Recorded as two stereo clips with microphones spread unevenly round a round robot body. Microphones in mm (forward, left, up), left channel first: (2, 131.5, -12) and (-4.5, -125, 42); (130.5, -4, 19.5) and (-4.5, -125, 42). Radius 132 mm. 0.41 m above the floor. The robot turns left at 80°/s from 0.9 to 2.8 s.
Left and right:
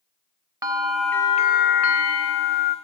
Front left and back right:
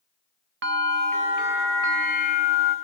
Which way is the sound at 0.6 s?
175° right.